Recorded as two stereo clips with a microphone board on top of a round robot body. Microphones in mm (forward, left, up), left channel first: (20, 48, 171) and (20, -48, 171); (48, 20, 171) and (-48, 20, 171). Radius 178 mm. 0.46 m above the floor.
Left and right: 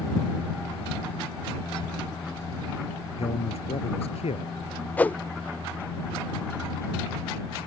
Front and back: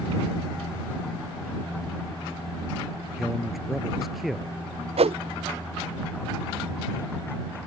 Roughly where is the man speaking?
Left.